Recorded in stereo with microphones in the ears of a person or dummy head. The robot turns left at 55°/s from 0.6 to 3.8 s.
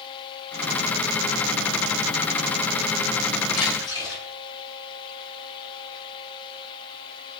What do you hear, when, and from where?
3.5 s a splash: 40° left (ahead or behind), 10 m; by 4.2 s 25° left (ahead or behind), 10 m